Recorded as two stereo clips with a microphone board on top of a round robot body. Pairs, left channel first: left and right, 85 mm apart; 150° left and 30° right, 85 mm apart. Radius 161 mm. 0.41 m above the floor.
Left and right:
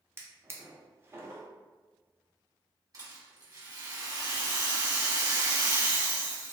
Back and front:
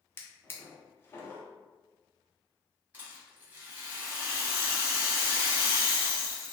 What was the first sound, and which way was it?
A drawer, 150° right.